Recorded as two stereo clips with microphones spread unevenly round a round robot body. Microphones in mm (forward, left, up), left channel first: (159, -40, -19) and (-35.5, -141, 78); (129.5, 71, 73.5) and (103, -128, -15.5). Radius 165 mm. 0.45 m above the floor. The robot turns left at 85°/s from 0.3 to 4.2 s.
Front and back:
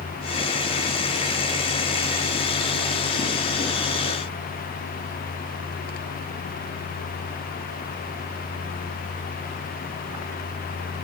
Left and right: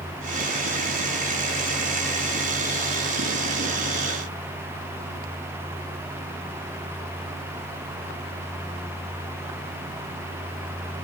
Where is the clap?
I don't hear a clap.